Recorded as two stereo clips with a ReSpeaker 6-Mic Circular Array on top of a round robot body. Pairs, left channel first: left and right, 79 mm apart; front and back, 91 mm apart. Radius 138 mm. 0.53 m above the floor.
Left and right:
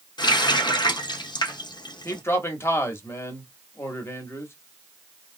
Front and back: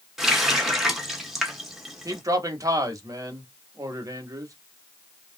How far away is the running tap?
About 1.1 m.